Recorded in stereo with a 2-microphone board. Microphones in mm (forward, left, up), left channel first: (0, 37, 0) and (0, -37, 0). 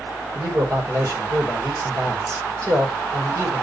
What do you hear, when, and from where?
0.3 s a man speaking: 45° right (ahead or behind), 4 m